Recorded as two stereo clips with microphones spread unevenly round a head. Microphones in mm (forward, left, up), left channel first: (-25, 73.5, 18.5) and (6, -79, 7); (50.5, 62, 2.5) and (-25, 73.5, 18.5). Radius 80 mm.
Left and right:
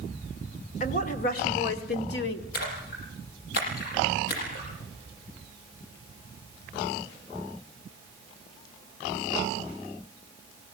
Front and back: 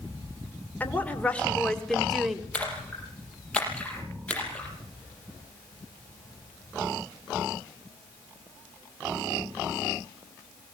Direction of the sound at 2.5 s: 65° left.